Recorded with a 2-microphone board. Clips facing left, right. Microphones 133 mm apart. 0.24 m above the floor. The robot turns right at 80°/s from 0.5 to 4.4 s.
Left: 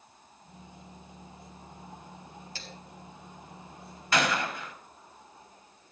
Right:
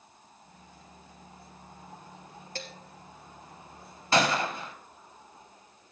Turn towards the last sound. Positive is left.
turn(degrees=-30)  # may be behind; listen again after turning